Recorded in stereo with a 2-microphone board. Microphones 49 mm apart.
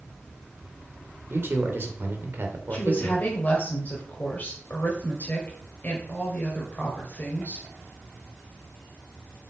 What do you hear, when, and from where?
1.3 s a man speaking: 50° right (ahead or behind), 2 m
2.7 s a woman speaking: 35° left (ahead or behind), 2.5 m